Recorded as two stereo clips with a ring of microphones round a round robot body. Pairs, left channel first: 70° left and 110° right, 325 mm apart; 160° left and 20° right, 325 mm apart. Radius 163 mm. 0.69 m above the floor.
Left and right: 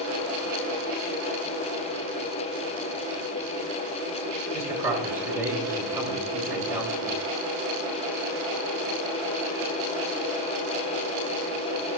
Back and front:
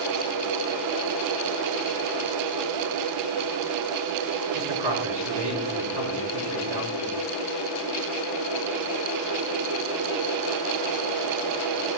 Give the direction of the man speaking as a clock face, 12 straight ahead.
1 o'clock.